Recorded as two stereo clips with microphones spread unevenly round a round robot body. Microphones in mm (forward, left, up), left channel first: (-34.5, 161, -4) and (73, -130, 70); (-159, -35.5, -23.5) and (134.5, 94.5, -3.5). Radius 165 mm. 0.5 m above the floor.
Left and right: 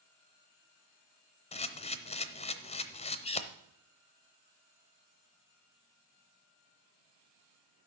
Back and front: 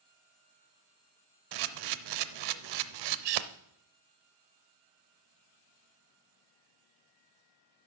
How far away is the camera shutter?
About 0.7 m.